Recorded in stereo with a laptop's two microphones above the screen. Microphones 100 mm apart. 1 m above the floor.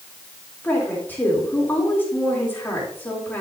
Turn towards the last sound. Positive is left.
turn(degrees=20)  # may be behind; listen again after turning